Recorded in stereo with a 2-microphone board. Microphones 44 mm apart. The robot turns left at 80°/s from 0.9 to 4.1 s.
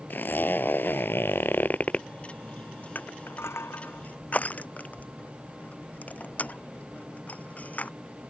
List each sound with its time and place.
0.1 s a zipper: 120° left; by 2.1 s 25° left
3.0 s crushing: 45° left (ahead or behind); by 7.9 s 40° left (ahead or behind)